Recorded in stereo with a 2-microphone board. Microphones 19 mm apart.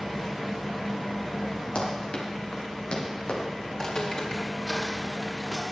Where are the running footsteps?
65° left (ahead or behind), 5 m; by 3.4 s 50° left (ahead or behind), 4.5 m.